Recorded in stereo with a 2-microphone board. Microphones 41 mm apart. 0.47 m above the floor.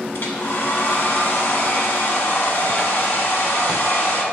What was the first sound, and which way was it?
A hair dryer, 70° left (ahead or behind).